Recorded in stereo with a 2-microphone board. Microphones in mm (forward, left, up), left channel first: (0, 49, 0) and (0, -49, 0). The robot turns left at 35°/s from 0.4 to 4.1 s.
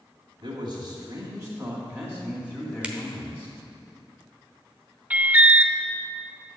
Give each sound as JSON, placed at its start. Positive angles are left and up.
{"t": 0.4, "sound": "a man speaking", "azimuth_deg": -95, "distance_m": 2.5}
{"t": 2.8, "sound": "a finger snap", "side_deg": -10, "distance_m": 0.9}
{"t": 5.1, "sound": "an alarm", "side_deg": -15, "distance_m": 0.5}